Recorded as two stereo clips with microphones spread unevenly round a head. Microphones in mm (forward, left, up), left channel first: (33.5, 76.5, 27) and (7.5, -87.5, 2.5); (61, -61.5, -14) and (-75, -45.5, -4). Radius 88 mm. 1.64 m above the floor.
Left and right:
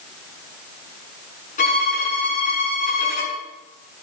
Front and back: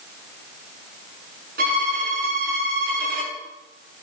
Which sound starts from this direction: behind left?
A violin, at 1.6 s.